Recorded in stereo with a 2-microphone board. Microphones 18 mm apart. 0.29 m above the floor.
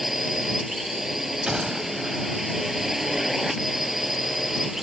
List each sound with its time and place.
0.0 s a drone: 15° right (ahead or behind)
1.5 s a gunshot: 45° right (ahead or behind)